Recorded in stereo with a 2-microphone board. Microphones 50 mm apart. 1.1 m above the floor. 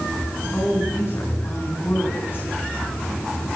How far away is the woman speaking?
About 10 m.